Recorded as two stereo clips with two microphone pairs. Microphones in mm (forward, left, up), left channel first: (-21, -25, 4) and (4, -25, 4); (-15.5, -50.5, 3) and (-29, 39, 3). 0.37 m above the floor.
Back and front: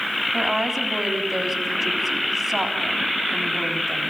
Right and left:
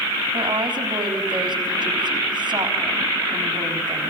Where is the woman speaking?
85° left, 3.5 m.